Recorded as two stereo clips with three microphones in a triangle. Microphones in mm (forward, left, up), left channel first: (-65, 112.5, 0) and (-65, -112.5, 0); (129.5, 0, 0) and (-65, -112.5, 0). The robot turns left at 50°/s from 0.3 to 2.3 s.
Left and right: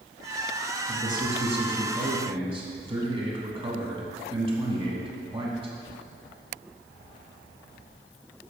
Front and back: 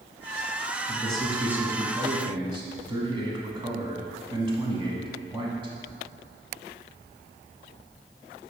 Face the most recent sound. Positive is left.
turn(degrees=-115)